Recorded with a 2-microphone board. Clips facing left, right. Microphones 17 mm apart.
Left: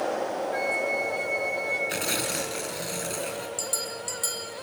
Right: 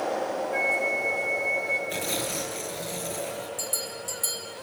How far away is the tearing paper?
About 4 m.